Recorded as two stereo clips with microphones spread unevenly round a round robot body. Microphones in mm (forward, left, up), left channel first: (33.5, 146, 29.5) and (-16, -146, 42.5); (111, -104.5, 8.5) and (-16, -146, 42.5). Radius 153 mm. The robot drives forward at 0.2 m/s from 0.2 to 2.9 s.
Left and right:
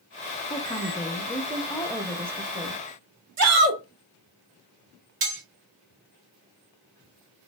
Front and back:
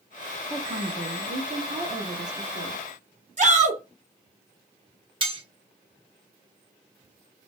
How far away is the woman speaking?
About 0.5 m.